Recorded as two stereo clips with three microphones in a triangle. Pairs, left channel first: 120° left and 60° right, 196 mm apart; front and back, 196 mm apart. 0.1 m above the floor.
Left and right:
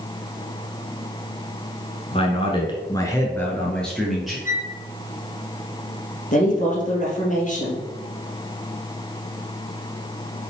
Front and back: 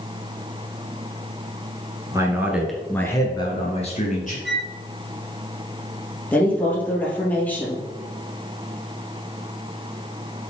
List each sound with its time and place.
2.1 s a man speaking: 130° left, 1.7 m; by 4.3 s 25° left, 2.5 m
4.5 s a flute: 165° left, 0.9 m
6.3 s a woman speaking: 80° left, 3 m